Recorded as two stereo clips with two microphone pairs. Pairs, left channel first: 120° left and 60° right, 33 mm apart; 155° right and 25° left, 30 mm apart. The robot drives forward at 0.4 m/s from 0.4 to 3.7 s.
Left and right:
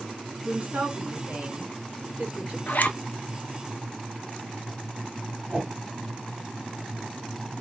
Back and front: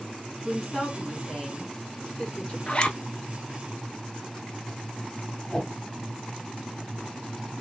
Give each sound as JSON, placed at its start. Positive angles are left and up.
{"t": 0.5, "sound": "a woman speaking", "azimuth_deg": -70, "distance_m": 2.5}
{"t": 2.7, "sound": "a zipper", "azimuth_deg": 150, "distance_m": 0.6}
{"t": 5.5, "sound": "a whoosh", "azimuth_deg": -115, "distance_m": 0.7}